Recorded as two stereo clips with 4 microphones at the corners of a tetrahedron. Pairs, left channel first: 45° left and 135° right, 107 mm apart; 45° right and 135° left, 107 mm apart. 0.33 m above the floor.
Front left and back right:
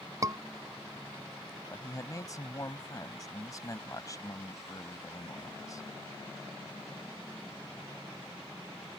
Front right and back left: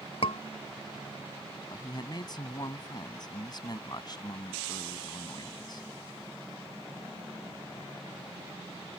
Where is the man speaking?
5° right.